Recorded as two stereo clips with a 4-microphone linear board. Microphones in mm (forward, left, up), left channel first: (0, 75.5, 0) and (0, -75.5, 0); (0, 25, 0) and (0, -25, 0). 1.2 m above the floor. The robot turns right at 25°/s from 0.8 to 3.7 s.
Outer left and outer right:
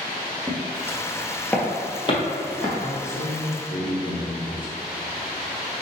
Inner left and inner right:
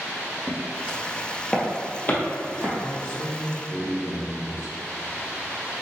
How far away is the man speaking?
About 1.2 m.